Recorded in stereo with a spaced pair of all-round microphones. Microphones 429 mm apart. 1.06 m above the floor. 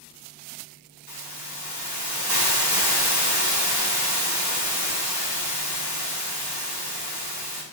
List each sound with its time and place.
1.1 s a hiss: 60° right (ahead or behind), 5 m